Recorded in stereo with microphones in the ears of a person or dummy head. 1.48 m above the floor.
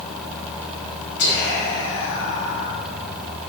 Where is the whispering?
70° left (ahead or behind), 1.5 m.